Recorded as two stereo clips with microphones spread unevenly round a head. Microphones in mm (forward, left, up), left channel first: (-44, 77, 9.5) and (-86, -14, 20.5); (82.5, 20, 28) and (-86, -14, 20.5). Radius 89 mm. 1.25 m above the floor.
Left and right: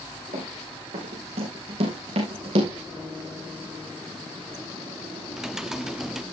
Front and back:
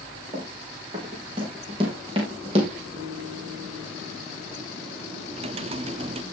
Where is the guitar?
165° left, 4.5 m.